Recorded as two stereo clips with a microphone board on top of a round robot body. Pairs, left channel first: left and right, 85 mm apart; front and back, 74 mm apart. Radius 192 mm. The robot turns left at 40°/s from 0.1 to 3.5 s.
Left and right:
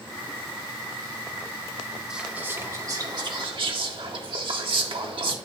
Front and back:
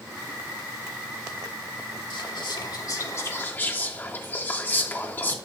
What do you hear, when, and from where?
2.1 s whispering: 10° right, 1.5 m; by 5.4 s 65° right, 1.5 m